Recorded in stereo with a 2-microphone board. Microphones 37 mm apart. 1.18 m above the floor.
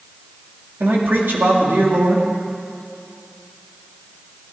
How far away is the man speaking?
About 2.5 m.